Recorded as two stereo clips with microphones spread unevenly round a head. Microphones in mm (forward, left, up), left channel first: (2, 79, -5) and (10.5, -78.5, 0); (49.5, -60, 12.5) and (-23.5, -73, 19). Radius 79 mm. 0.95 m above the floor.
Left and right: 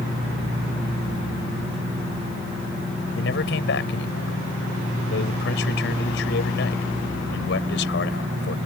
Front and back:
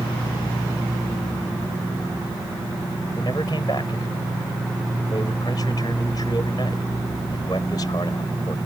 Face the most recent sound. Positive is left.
turn(degrees=75)